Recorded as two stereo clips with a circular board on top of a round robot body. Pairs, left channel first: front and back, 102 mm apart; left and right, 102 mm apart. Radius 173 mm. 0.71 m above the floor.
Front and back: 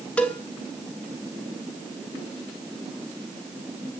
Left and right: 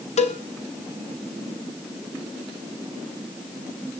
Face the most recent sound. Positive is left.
turn(degrees=80)